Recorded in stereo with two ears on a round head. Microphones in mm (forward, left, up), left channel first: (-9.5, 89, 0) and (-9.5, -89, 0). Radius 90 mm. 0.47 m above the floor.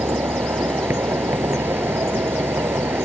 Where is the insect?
10° right (ahead or behind).